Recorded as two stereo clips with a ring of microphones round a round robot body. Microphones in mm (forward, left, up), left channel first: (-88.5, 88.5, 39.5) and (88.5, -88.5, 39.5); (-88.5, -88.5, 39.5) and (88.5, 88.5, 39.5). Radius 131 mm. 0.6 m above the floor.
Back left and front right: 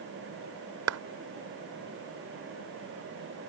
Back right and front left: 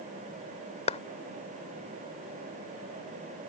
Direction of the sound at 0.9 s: 70° right.